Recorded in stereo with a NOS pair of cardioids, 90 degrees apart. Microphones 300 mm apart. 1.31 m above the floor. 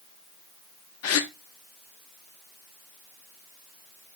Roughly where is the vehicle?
I don't hear a vehicle.